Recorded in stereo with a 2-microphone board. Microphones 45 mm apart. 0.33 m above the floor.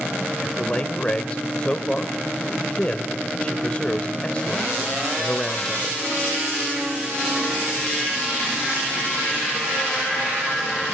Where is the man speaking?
25° left (ahead or behind), 1.4 m.